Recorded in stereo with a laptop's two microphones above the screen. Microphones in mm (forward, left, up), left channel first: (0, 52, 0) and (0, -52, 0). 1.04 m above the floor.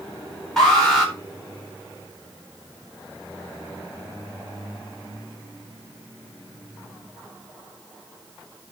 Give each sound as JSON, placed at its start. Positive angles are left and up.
{"t": 0.6, "sound": "an alarm", "side_deg": 5, "distance_m": 4.0}